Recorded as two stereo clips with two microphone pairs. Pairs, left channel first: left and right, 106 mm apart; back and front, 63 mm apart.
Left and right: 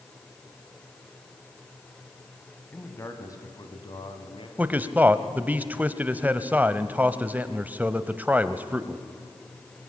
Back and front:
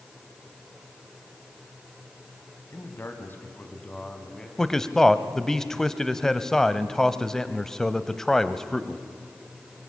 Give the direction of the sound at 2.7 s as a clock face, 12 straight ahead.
7 o'clock.